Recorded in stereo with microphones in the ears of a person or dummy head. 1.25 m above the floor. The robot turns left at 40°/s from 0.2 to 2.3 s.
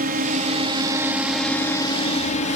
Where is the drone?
130° right; by 2.6 s 145° left.